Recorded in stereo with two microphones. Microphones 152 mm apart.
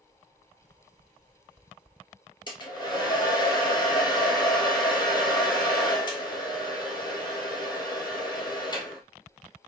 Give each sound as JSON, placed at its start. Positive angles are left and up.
{"t": 2.5, "sound": "a hair dryer", "side_deg": 30, "distance_m": 2.0}